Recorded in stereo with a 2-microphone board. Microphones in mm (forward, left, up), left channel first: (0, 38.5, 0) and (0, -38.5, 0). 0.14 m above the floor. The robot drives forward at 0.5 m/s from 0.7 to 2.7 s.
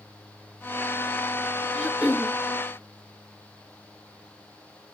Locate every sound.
1.7 s throat clearing: 5° right (ahead or behind), 1.7 m